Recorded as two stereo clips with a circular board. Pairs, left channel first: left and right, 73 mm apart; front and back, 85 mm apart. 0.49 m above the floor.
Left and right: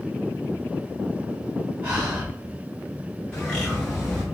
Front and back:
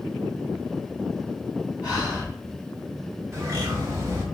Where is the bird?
155° left, 1.6 m.